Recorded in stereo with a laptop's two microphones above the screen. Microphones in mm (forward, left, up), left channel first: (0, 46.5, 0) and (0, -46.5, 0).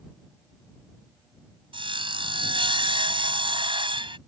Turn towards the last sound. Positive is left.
turn(degrees=-65)  # may be behind; listen again after turning